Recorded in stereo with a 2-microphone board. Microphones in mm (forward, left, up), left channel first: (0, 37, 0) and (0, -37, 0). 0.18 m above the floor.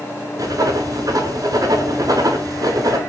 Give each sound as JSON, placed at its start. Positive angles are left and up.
{"t": 0.4, "sound": "writing", "side_deg": -60, "distance_m": 0.6}